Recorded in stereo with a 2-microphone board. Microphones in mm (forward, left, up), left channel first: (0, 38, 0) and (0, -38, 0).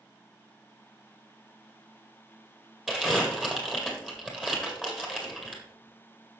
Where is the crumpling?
5° right (ahead or behind), 2 m.